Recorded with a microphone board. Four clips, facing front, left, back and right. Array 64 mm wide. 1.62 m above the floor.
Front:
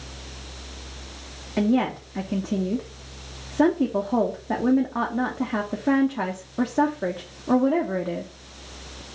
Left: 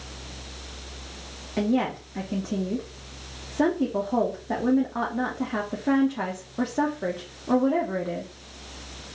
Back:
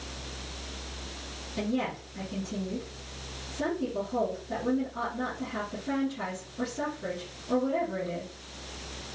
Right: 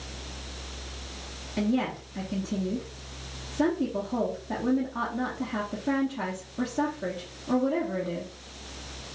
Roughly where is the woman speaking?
Ahead left.